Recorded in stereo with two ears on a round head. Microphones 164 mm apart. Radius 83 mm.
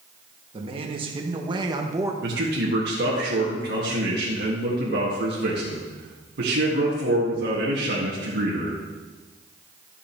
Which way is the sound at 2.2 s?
65° right (ahead or behind).